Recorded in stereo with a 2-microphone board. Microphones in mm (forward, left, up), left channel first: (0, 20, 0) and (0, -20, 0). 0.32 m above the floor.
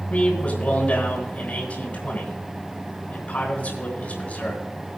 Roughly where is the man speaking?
Left.